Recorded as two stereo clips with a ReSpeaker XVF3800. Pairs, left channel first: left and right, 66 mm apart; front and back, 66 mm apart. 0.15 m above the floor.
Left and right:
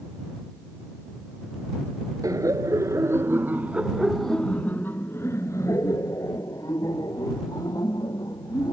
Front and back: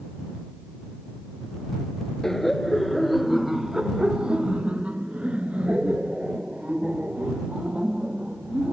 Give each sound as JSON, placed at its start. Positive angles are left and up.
{"t": 2.2, "sound": "laughter", "azimuth_deg": -85}